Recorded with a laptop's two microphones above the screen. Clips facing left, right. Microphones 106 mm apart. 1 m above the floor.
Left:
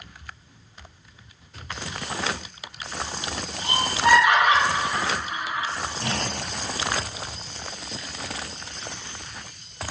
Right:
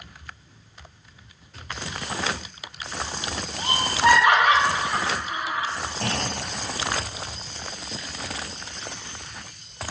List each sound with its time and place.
3.6 s laughter: 65° right (ahead or behind), 0.6 m
6.0 s a clunk: 65° right (ahead or behind), 0.7 m